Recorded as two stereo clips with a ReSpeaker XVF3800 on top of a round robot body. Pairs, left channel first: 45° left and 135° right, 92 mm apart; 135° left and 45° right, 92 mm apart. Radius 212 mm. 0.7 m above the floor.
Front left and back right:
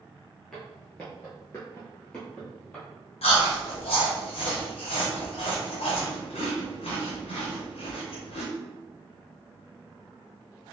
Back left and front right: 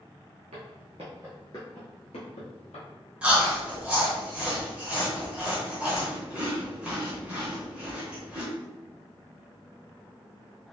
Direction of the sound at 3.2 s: 35° left.